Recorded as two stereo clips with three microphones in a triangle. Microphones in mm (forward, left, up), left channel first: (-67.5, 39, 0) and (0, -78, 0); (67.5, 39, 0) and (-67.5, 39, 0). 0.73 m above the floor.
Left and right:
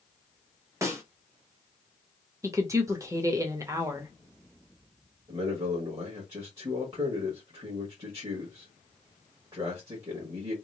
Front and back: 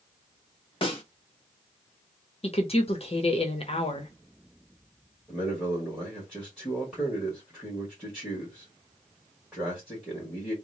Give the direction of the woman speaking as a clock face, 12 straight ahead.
12 o'clock.